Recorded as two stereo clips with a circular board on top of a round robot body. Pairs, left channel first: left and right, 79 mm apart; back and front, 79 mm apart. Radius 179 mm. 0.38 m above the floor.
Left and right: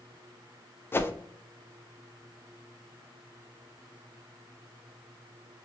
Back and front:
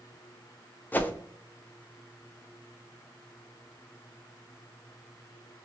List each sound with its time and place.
0.9 s a whoosh: 130° left, 0.6 m